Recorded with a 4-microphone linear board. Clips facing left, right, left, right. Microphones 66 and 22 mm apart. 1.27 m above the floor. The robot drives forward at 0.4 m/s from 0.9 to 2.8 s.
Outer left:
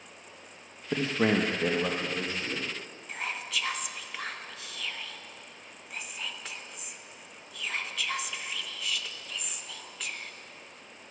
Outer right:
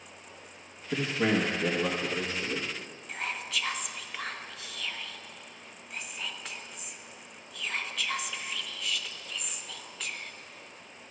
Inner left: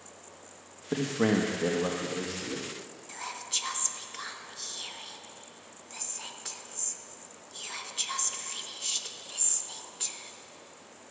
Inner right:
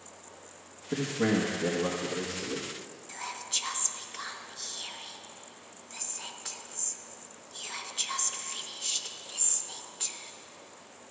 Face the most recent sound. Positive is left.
turn(degrees=0)  # may be behind; listen again after turning